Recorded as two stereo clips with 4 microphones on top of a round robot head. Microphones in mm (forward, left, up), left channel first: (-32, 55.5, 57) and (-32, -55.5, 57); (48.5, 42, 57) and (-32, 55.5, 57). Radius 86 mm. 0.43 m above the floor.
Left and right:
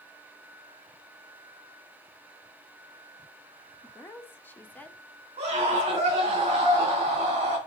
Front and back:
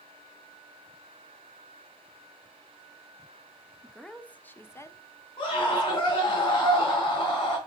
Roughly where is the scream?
Ahead right.